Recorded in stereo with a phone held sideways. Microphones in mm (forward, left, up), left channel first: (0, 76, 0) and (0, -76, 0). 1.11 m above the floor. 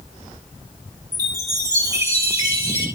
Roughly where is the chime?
Right.